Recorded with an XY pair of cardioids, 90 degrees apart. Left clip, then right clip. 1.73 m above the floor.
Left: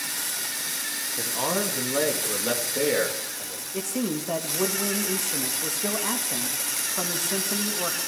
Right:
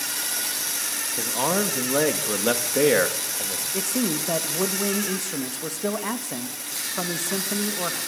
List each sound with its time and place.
1.2 s a man speaking: 30° right, 3 m; by 3.6 s 55° right, 3 m
3.7 s a man speaking: 15° right, 3 m